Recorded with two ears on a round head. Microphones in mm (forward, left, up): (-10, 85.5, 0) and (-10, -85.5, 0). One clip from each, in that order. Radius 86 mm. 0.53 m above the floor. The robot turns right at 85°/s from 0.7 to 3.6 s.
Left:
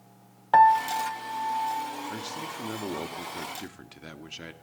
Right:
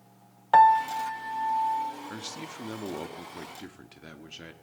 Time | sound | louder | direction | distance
0.5 | a piano | even | 160° right | 0.8 m
2.1 | a man speaking | left 4 dB | 20° right (ahead or behind) | 1.1 m